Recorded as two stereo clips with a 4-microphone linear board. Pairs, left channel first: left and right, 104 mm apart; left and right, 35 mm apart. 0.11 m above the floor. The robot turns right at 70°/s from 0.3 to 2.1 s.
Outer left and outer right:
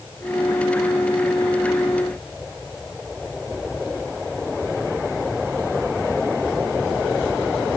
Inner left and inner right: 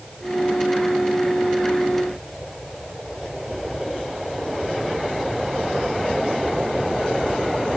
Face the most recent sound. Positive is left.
No sound to turn to.